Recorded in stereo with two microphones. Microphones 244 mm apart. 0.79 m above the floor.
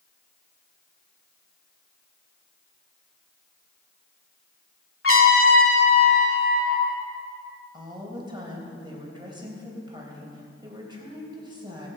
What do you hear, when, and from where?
5.0 s a trumpet: 60° left (ahead or behind), 1.9 m
7.7 s a woman speaking: 20° right (ahead or behind), 4 m